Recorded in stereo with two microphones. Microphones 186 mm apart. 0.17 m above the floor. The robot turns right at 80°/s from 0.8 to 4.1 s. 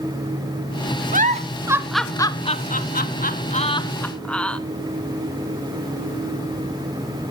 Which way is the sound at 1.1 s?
45° right (ahead or behind).